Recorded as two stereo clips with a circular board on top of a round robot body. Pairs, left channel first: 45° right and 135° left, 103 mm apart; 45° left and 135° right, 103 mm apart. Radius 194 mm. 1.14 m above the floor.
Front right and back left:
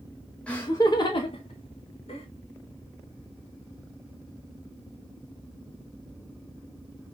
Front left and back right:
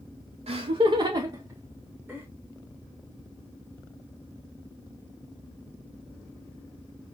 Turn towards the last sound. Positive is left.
turn(degrees=-50)